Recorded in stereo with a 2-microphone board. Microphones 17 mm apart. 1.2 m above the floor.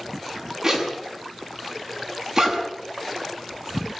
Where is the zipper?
25° right (ahead or behind), 6.5 m.